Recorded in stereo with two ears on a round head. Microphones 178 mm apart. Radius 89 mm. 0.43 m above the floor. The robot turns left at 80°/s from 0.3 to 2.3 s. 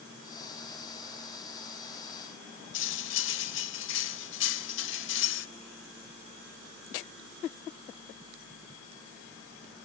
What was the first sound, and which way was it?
Cutlery clinking, 65° left (ahead or behind).